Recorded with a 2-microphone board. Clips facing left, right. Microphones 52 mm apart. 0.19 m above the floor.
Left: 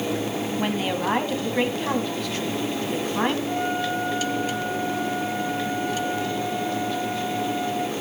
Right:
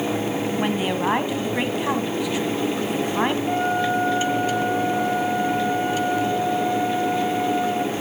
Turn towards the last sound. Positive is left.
turn(degrees=-70)  # may be behind; listen again after turning